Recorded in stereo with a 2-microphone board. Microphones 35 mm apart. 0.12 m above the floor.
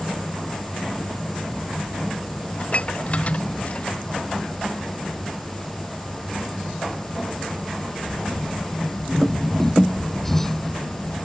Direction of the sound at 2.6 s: 35° left (ahead or behind).